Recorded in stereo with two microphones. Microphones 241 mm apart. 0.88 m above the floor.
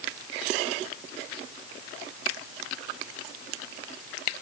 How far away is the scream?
No scream in this recording.